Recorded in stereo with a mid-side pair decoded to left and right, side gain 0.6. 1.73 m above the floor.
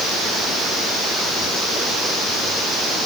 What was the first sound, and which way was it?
Only background noise.